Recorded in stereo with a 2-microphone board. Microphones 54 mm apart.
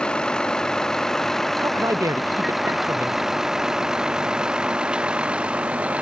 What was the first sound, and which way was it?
A vehicle, 15° left (ahead or behind).